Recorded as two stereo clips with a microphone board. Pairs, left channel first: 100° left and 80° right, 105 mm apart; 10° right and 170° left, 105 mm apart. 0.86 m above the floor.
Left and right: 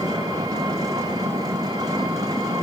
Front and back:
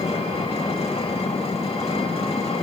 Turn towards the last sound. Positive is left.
turn(degrees=-25)